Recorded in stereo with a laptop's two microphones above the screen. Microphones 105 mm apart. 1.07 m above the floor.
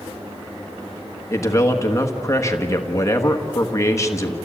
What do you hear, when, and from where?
1.3 s a man speaking: 25° left (ahead or behind), 1.3 m